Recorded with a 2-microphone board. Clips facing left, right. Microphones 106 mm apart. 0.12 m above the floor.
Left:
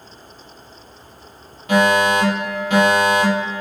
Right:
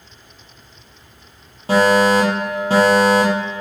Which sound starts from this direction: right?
A fire alarm, at 1.7 s.